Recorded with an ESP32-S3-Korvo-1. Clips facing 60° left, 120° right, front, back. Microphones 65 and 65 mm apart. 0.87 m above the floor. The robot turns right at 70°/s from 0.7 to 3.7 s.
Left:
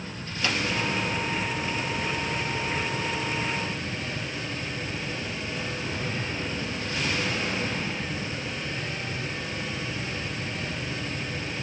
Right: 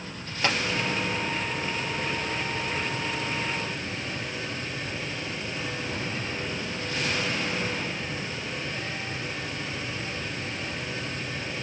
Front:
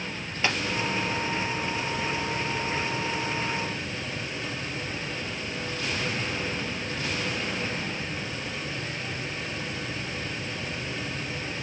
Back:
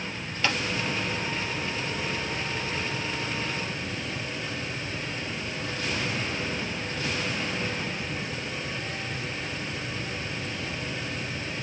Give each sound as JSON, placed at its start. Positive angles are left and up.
{"t": 0.4, "sound": "tapping", "azimuth_deg": -70, "distance_m": 3.0}